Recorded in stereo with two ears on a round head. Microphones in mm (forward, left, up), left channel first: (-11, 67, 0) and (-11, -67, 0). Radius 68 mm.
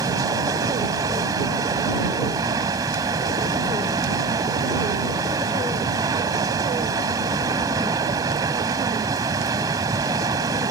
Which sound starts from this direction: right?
Running water, at 0.0 s.